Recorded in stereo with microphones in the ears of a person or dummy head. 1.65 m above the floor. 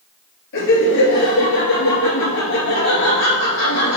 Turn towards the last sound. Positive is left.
turn(degrees=65)  # may be behind; listen again after turning